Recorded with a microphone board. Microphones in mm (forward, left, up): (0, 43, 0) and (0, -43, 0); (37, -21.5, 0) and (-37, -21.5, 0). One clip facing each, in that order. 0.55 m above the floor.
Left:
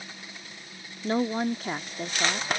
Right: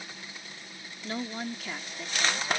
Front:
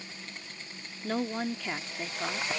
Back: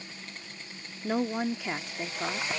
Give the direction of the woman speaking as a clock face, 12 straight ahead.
8 o'clock.